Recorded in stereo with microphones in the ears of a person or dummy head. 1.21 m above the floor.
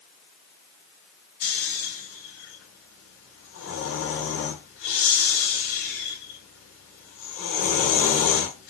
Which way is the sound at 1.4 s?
70° left (ahead or behind).